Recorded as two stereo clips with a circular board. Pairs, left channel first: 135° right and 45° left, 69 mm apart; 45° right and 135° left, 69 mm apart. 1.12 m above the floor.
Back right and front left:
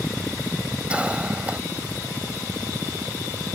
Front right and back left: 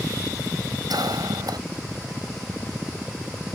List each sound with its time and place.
0.9 s a cough: 120° left